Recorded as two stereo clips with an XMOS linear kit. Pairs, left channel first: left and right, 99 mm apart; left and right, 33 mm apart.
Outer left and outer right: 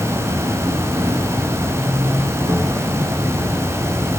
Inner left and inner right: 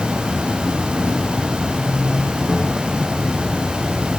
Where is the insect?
30° right (ahead or behind), 2.5 m.